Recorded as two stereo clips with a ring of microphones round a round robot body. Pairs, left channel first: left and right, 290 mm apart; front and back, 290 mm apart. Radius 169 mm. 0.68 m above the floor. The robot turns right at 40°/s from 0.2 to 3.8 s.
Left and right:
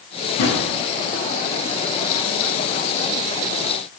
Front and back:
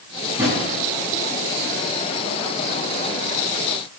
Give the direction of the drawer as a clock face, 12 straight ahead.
9 o'clock.